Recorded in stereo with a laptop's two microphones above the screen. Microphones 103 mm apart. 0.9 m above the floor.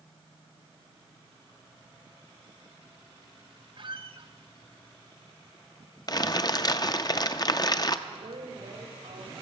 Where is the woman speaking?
70° right (ahead or behind), 2 m.